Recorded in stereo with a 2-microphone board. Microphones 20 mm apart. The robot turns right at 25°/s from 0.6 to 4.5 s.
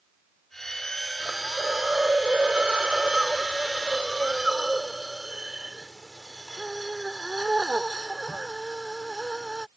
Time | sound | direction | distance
1.2 | a hiss | 105° right | ?